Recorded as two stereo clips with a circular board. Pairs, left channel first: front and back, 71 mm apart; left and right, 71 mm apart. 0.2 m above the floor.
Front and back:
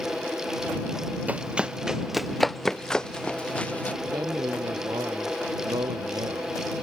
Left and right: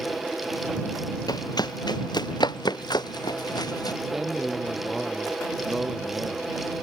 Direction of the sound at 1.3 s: 110° left.